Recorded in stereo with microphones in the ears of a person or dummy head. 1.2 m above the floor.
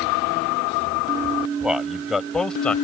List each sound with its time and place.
1.6 s a man speaking: 5° right (ahead or behind); by 2.8 s 5° left (ahead or behind)